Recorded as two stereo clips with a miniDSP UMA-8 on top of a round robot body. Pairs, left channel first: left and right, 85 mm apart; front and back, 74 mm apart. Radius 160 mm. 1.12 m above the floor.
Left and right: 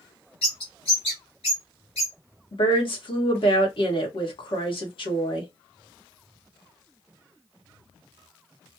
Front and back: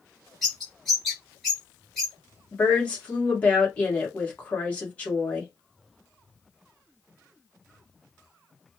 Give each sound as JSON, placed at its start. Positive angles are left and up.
{"t": 0.4, "sound": "a bird", "azimuth_deg": 90, "distance_m": 0.6}
{"t": 2.5, "sound": "a woman speaking", "azimuth_deg": 70, "distance_m": 1.6}